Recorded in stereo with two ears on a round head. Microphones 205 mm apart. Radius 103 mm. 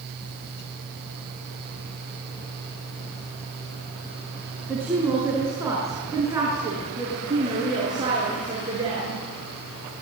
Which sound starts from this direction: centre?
A woman speaking, at 4.7 s.